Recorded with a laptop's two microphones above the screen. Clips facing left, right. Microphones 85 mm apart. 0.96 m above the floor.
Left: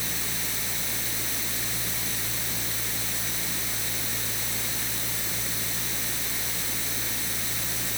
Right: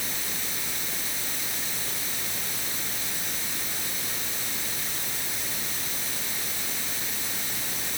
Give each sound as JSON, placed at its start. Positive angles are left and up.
{"t": 0.0, "sound": "a fan", "side_deg": 80}